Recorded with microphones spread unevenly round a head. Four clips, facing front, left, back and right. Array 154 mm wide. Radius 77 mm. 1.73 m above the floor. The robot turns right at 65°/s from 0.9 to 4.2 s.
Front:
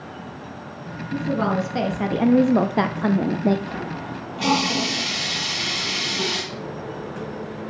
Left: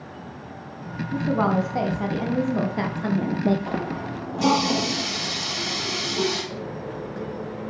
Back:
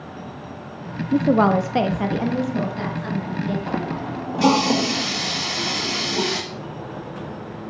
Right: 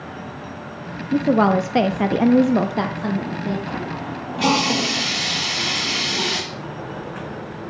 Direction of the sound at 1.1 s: 135° right.